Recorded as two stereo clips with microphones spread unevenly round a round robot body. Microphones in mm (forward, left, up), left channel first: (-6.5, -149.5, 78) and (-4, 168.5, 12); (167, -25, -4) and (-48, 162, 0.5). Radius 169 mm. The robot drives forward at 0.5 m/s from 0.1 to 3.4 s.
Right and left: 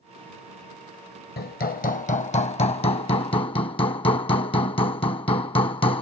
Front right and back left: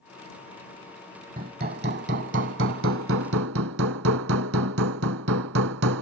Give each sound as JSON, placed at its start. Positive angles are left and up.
{"t": 1.4, "sound": "hammering", "azimuth_deg": -155}